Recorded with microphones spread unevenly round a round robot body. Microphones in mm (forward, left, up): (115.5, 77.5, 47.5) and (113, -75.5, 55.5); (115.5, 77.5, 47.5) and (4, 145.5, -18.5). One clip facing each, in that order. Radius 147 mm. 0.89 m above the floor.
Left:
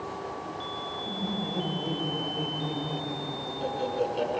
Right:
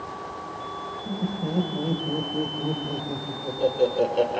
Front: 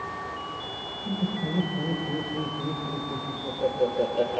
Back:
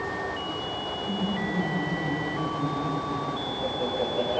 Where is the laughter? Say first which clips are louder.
Right 5 dB, front 1 dB; 30° right, 5 m; by 4.4 s 70° right, 3.5 m.